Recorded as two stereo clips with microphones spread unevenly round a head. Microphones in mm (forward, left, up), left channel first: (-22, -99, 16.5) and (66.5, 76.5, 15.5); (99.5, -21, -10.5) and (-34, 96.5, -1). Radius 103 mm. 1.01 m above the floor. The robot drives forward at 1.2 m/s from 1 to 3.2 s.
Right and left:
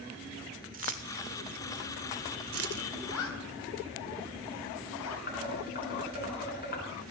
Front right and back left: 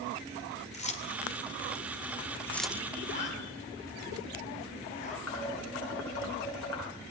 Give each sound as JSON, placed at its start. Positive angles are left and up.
{"t": 0.7, "sound": "keys jangling", "azimuth_deg": 10, "distance_m": 2.5}
{"t": 3.0, "sound": "a zipper", "azimuth_deg": -100, "distance_m": 3.5}
{"t": 5.3, "sound": "dishes clattering", "azimuth_deg": -70, "distance_m": 8.5}